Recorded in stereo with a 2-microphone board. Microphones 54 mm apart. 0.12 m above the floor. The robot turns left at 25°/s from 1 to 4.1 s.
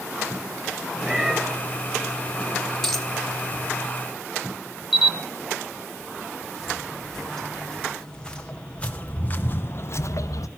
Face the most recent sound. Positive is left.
turn(degrees=85)